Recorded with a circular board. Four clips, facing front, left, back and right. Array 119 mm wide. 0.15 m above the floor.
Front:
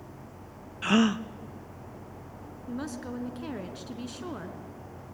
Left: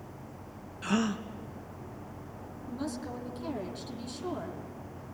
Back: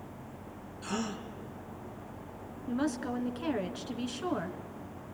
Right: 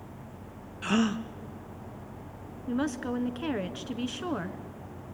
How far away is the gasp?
About 0.7 m.